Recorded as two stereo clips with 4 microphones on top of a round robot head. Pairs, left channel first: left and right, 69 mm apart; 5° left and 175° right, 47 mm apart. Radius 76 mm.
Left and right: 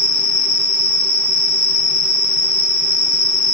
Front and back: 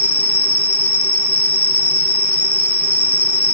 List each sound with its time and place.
0.0 s an insect: 40° left, 1.6 m